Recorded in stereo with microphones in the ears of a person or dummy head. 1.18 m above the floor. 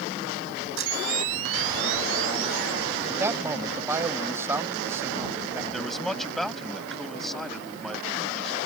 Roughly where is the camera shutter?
Right.